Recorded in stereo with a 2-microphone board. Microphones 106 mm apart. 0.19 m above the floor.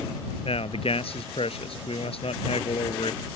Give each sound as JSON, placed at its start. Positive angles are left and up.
{"t": 0.5, "sound": "a man speaking", "side_deg": 65}